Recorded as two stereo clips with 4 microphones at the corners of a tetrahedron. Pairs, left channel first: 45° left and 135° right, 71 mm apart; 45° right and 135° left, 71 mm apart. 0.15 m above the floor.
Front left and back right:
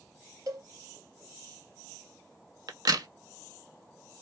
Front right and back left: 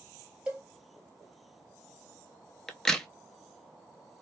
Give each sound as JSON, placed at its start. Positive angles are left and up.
{"t": 0.5, "sound": "a cowbell", "azimuth_deg": -155, "distance_m": 1.4}
{"t": 2.7, "sound": "a crack", "azimuth_deg": -130, "distance_m": 0.5}